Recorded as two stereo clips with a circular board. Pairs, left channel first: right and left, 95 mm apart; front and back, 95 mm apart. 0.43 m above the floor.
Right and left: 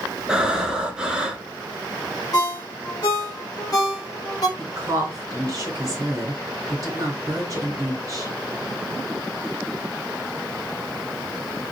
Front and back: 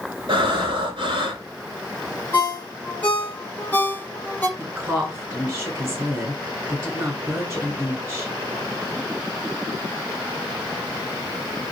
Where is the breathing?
170° left, 1.0 m.